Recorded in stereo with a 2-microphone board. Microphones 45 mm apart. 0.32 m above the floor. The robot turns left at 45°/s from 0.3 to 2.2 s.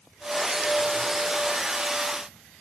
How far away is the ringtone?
No ringtone in this recording.